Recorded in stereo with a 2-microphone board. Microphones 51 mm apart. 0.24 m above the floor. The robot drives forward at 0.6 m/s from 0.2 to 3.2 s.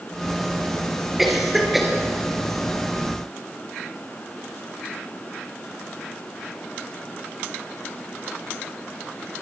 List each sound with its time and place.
1.2 s a cough: 5° right (ahead or behind), 4.5 m